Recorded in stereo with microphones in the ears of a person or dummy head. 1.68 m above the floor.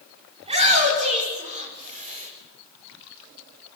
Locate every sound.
0.4 s a shout: 30° right (ahead or behind), 6 m; by 2.3 s 40° right (ahead or behind), 6.5 m